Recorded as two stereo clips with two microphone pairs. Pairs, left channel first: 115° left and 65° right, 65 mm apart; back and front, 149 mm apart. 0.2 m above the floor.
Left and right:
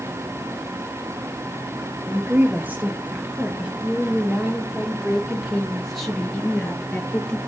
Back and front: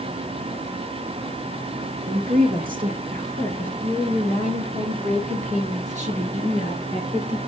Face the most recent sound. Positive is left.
turn(degrees=45)